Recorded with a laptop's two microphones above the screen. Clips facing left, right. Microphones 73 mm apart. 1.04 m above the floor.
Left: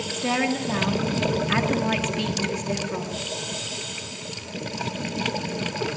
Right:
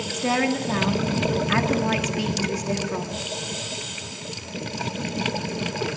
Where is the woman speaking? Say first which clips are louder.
Right 2 dB; 10° right (ahead or behind), 1.5 m.